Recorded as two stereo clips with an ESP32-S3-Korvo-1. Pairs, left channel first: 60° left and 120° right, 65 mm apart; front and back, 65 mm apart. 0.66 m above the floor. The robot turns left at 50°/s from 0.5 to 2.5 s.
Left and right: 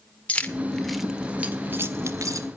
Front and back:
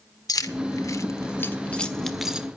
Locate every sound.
0.3 s keys jangling: 10° right, 1.4 m; by 2.5 s 105° right, 1.4 m